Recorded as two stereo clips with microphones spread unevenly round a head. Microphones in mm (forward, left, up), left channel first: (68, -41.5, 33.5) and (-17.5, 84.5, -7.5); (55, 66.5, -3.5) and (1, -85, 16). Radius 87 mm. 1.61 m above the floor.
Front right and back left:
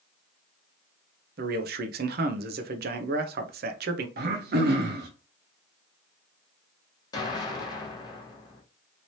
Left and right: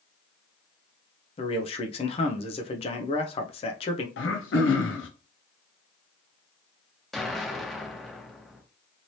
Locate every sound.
1.4 s a man speaking: 120° left, 0.5 m
4.2 s throat clearing: 100° left, 0.7 m
7.1 s an explosion: 25° right, 1.0 m